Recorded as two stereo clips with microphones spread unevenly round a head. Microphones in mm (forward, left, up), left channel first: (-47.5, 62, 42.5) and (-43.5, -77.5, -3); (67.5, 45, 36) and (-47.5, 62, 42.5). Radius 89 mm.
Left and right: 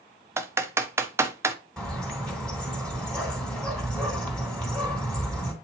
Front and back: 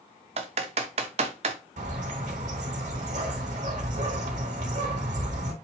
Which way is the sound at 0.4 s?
170° right.